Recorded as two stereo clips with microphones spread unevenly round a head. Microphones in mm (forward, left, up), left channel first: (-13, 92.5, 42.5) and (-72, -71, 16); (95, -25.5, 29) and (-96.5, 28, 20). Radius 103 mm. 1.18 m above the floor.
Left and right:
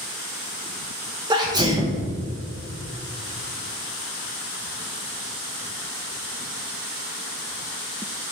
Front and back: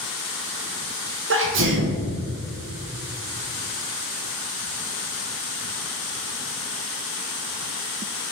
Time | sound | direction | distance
1.3 | a sneeze | 175° right | 0.9 m